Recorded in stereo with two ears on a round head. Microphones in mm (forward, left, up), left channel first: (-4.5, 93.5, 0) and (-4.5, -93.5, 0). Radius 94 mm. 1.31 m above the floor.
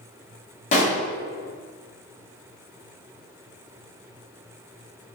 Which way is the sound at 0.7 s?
35° left (ahead or behind).